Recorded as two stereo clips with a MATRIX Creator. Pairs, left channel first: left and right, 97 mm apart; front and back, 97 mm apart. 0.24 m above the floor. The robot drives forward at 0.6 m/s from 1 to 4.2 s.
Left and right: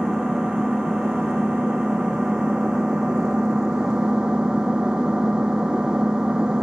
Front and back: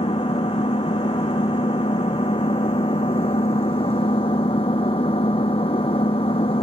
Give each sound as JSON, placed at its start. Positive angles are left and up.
{"t": 0.0, "sound": "an engine running", "azimuth_deg": -5}